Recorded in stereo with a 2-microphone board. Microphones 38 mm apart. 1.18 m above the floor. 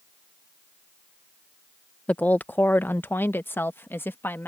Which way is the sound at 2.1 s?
40° left (ahead or behind).